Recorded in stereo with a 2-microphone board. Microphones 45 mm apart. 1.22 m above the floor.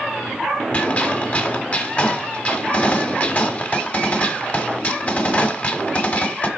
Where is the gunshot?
35° left (ahead or behind), 1.2 m.